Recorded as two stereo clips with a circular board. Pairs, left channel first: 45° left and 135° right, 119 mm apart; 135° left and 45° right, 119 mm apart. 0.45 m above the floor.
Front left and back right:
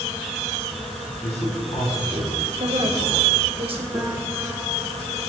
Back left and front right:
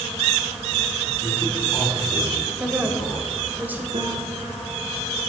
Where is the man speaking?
75° left, 4.5 m.